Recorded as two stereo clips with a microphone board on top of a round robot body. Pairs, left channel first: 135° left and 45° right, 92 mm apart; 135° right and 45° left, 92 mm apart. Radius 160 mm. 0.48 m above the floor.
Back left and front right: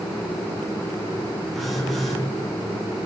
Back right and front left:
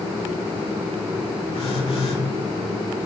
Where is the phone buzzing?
135° right, 2.5 m.